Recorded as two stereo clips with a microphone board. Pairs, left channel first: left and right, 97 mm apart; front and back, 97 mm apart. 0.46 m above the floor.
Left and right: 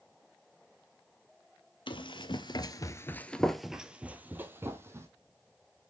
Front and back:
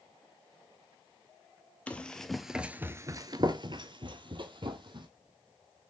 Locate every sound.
1.9 s running footsteps: 75° left, 0.8 m; by 5.1 s 150° right, 1.2 m